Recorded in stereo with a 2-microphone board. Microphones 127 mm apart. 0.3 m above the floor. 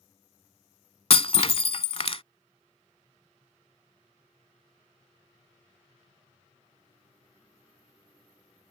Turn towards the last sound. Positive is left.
turn(degrees=50)  # may be behind; listen again after turning